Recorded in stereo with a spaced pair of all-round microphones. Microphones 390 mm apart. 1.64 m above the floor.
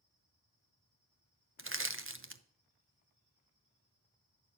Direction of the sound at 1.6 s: 35° right (ahead or behind).